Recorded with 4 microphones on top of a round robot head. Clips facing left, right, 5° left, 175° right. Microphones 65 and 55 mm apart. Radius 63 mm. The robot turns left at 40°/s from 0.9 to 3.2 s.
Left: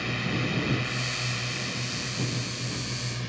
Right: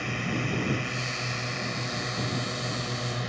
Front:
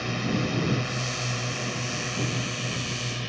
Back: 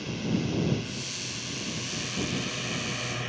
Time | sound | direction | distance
0.0 | a drone | 10° right | ?